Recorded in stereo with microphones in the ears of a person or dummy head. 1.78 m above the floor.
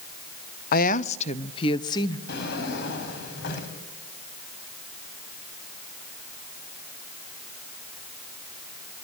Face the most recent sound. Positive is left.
turn(degrees=60)  # may be behind; listen again after turning